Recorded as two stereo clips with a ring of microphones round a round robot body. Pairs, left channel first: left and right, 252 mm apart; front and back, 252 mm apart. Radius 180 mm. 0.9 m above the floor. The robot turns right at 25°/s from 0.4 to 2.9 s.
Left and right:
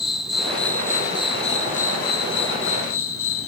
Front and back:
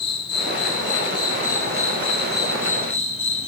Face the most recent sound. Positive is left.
turn(degrees=60)